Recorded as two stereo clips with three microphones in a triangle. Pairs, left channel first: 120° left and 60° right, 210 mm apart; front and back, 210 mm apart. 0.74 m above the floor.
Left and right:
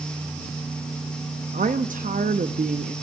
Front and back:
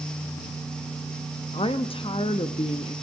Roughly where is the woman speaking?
Ahead right.